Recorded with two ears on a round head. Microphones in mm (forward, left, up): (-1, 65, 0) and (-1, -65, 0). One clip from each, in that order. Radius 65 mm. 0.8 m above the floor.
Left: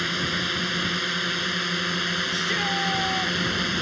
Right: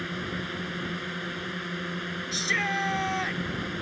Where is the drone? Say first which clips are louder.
Left 9 dB; 75° left (ahead or behind); by 3.8 s 85° left.